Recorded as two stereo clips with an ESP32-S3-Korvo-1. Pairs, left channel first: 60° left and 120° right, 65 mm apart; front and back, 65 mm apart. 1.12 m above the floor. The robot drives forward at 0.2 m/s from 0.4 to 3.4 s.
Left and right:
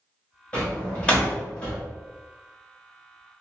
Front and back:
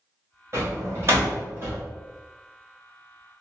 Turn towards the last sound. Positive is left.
turn(degrees=145)